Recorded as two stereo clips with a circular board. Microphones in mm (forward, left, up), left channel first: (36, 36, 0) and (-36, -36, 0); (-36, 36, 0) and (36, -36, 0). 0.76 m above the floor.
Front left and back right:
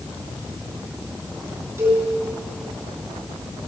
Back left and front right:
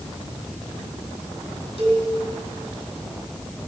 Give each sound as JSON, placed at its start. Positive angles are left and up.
{"t": 1.8, "sound": "a cowbell", "azimuth_deg": 165, "distance_m": 3.0}